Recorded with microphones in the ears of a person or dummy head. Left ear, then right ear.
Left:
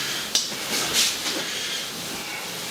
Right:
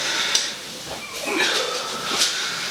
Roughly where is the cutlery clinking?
Centre.